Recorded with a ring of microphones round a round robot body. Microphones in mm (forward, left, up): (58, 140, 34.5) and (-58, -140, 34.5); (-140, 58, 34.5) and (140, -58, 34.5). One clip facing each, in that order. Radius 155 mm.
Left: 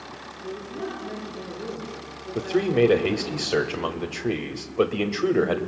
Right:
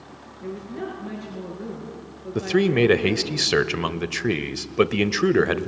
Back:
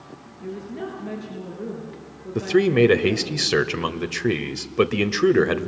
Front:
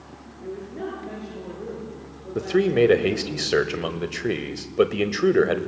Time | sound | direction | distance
0.4 | a woman speaking | 135° right | 6.5 m
2.4 | a man speaking | 135° right | 1.1 m